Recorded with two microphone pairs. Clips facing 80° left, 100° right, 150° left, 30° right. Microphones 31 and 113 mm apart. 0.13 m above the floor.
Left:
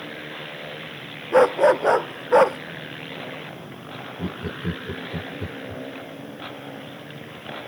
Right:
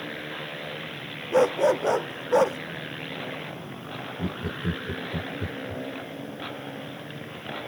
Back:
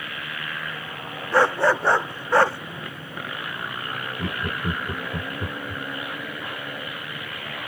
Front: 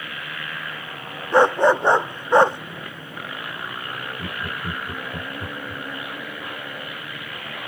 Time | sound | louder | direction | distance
1.3 | a dog barking | left 5 dB, front 4 dB | 40° left | ?
4.2 | laughter | left 1 dB, back 5 dB | 115° left | ?